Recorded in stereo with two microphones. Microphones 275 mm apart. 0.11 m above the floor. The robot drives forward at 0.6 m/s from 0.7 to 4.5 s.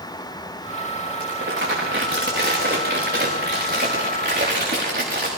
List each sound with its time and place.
1.2 s crumpling: 45° right (ahead or behind), 7.5 m; by 5.3 s 35° right (ahead or behind), 9 m